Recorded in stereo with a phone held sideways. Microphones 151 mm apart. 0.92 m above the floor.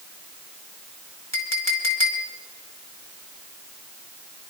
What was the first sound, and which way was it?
A clink, 20° left (ahead or behind).